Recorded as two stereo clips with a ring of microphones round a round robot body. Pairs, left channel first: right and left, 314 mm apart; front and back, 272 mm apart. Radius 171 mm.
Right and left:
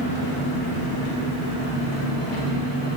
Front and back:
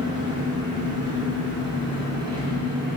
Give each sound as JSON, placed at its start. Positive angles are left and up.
{"t": 0.0, "sound": "an engine running", "azimuth_deg": -80, "distance_m": 2.0}